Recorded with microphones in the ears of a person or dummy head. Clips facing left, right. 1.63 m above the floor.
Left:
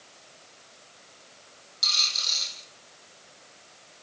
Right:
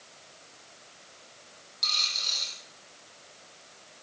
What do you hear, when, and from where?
1.8 s a dropped coin: 5° left (ahead or behind), 6.5 m